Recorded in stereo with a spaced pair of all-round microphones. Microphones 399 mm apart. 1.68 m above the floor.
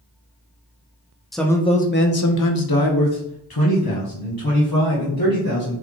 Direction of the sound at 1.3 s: Centre (ahead or behind).